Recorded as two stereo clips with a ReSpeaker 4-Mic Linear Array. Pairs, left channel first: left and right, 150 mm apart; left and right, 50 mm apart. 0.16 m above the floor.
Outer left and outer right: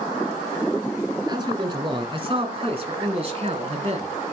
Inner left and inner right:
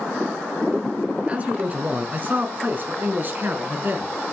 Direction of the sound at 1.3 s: 30° right (ahead or behind).